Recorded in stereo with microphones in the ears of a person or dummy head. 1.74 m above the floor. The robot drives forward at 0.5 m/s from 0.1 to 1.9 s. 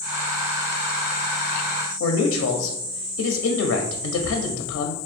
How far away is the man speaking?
About 0.5 m.